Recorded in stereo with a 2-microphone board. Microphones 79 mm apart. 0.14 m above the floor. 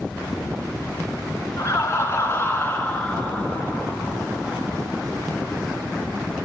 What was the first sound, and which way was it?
Laughter, 40° left (ahead or behind).